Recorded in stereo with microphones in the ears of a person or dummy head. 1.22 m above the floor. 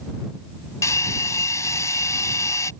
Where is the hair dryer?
15° left (ahead or behind).